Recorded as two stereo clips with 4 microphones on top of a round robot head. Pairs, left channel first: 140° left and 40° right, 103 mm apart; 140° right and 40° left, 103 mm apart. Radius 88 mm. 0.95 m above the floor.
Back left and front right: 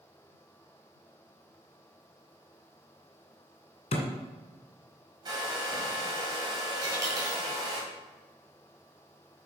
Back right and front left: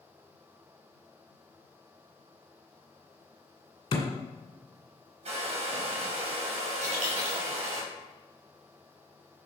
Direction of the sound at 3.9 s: 175° left.